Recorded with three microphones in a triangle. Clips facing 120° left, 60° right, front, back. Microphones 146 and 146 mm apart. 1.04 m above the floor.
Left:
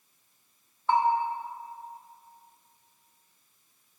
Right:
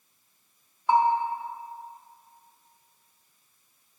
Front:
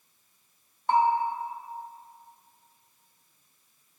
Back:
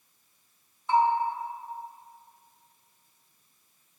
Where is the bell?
15° left, 1.2 m.